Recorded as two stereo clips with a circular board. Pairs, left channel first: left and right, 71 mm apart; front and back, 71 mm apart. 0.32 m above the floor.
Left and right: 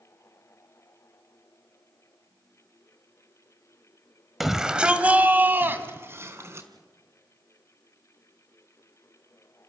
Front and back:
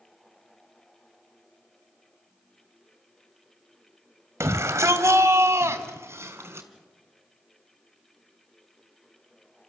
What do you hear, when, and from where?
4.4 s a shout: 175° right, 1.7 m; by 6.7 s 135° right, 3.5 m